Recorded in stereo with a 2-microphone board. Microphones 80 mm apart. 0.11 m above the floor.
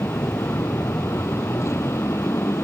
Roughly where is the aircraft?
Left.